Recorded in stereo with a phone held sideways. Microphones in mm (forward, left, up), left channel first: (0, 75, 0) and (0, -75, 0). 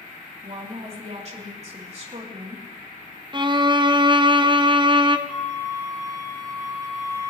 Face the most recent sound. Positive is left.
turn(degrees=45)  # may be behind; listen again after turning